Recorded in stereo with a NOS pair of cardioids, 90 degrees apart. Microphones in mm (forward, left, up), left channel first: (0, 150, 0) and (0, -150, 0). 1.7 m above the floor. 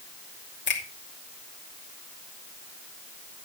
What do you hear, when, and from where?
0.7 s a finger snap: 40° left, 2.5 m